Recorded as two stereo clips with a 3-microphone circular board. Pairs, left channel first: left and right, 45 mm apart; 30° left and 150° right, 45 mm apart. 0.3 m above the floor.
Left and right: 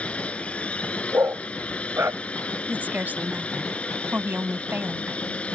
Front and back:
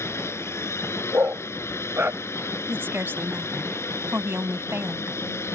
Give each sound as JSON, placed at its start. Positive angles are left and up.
{"t": 0.0, "sound": "a drone", "azimuth_deg": 30}
{"t": 1.1, "sound": "a dog barking", "azimuth_deg": -115}
{"t": 2.7, "sound": "a woman speaking", "azimuth_deg": -130}